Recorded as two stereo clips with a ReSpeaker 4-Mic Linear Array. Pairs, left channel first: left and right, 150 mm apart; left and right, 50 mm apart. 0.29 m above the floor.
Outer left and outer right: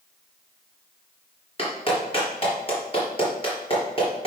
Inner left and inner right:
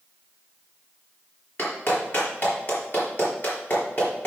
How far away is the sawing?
No sawing in this recording.